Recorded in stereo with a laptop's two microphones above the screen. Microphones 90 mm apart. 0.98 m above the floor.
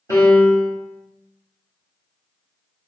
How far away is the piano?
About 0.6 m.